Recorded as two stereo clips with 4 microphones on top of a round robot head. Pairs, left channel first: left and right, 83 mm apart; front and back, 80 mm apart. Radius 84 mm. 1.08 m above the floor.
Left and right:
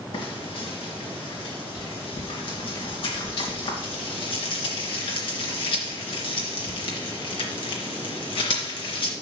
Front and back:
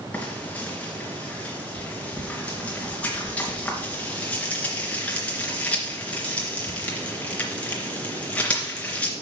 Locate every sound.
0.1 s frying: 75° left, 3 m